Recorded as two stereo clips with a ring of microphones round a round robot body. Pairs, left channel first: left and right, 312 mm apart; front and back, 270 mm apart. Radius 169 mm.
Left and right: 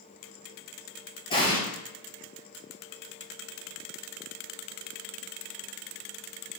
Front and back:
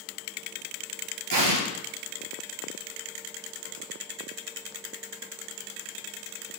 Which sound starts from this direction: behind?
An explosion, at 1.3 s.